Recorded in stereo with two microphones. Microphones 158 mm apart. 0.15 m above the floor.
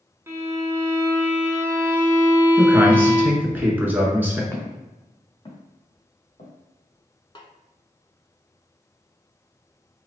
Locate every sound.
0.3 s a violin: 15° right (ahead or behind), 1.1 m
2.6 s a man speaking: 15° right (ahead or behind), 1.4 m
4.5 s footsteps: 15° left (ahead or behind), 2 m; by 6.5 s 55° left (ahead or behind), 2 m
7.3 s a snare drum: 35° left (ahead or behind), 0.7 m